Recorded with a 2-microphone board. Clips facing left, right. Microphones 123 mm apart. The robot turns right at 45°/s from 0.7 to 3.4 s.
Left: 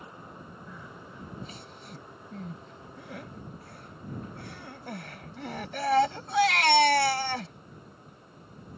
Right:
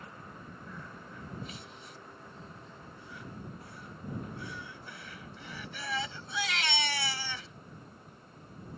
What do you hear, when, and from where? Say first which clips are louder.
0.7 s crying: left 1 dB; 5° left (ahead or behind); by 7.5 s 55° left (ahead or behind)